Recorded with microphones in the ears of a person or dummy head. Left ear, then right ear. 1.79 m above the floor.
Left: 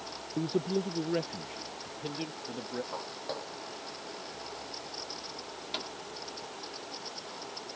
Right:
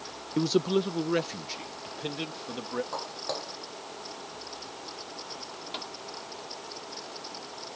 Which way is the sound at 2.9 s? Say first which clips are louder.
Right 4 dB; 20° right (ahead or behind).